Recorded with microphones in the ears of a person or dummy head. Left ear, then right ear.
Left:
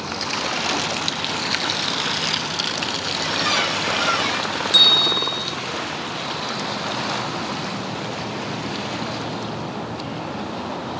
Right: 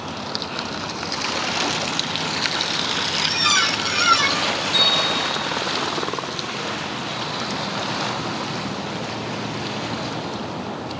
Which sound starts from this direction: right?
A squeak, at 3.2 s.